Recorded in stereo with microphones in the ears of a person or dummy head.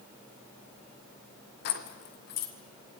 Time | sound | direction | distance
1.6 | keys jangling | 50° left (ahead or behind) | 1.5 m